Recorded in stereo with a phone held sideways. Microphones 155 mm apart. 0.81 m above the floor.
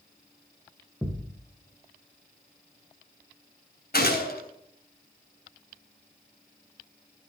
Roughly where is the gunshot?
Left.